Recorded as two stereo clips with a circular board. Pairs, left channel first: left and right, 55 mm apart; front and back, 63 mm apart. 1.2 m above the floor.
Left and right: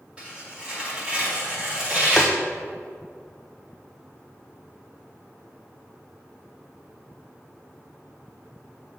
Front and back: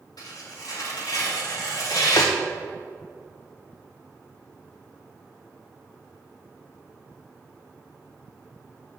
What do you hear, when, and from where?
0.2 s tearing paper: 20° right, 2 m
2.2 s tapping: 5° left, 0.5 m